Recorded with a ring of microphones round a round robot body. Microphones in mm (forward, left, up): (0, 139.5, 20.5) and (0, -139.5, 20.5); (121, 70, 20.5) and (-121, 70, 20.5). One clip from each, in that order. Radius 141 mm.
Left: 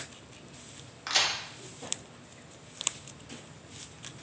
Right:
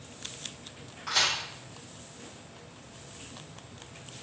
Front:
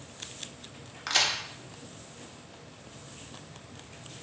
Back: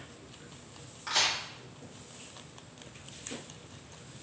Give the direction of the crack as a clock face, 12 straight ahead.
11 o'clock.